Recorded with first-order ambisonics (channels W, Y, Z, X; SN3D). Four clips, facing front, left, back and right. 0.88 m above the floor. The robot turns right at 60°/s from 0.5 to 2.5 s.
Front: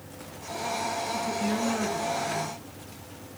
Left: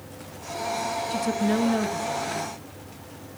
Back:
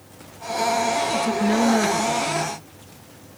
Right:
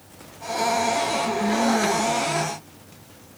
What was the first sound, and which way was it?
A woman speaking, 140° left.